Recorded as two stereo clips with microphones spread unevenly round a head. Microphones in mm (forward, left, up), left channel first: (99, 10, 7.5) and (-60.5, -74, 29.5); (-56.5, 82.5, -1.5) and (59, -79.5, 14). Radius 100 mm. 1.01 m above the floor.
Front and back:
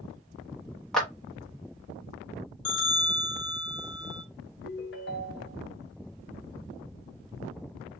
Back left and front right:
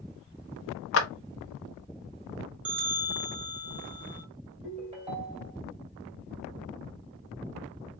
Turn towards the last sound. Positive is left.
turn(degrees=10)